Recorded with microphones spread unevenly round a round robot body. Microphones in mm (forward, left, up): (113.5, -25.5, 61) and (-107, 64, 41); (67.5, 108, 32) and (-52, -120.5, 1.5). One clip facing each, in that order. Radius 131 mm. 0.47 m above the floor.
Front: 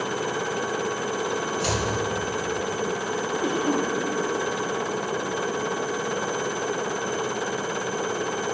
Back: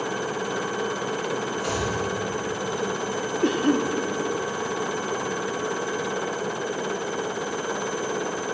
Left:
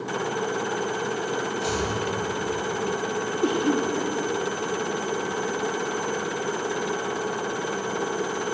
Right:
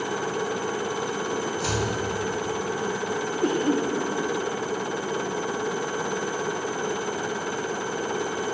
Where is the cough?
145° left, 1.0 m.